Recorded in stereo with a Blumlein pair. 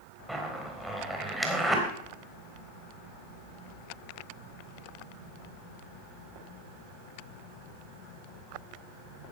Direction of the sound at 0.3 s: Straight ahead.